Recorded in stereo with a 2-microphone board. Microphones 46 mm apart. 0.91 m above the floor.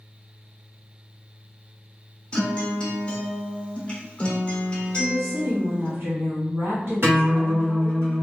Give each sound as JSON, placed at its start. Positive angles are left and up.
{"t": 2.3, "sound": "a guitar", "side_deg": 25, "distance_m": 1.0}
{"t": 4.9, "sound": "a woman speaking", "side_deg": -70, "distance_m": 1.7}
{"t": 7.0, "sound": "a guitar", "side_deg": -60, "distance_m": 1.8}